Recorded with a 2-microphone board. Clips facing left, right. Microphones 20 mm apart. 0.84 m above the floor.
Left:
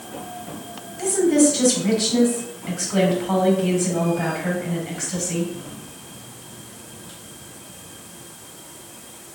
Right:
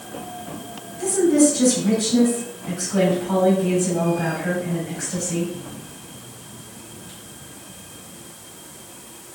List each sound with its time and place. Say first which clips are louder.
1.0 s a woman speaking: even; 60° left (ahead or behind), 4 m